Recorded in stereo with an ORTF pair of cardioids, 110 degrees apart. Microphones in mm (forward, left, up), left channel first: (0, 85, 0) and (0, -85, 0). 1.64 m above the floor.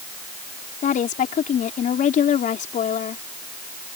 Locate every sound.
0.8 s a woman speaking: 50° left